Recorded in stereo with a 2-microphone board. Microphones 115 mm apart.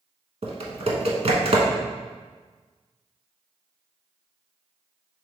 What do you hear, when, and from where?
0.4 s typing on a keyboard: 65° right (ahead or behind), 0.7 m